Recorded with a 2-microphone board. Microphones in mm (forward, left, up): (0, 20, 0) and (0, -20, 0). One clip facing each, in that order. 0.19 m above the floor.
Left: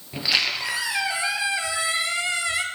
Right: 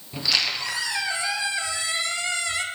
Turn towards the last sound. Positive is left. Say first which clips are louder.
# left 1 dB
turn(degrees=15)  # may be behind; listen again after turning